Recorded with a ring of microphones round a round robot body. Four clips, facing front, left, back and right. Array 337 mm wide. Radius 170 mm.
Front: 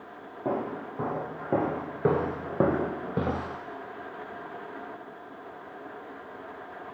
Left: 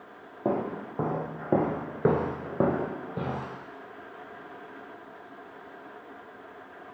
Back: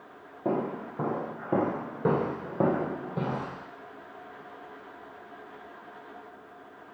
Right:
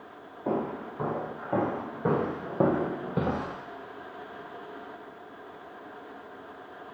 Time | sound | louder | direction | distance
0.5 | footsteps | left 1 dB, back 1 dB | 95° left | 2 m